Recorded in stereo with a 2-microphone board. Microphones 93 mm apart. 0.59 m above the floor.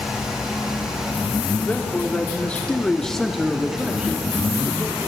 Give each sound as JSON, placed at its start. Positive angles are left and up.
{"t": 1.6, "sound": "a man speaking", "side_deg": 15, "distance_m": 1.4}